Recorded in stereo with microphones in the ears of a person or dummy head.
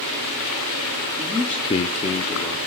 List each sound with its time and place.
1.2 s a man speaking: 5° right (ahead or behind), 1.0 m; by 2.6 s 30° left (ahead or behind), 1.4 m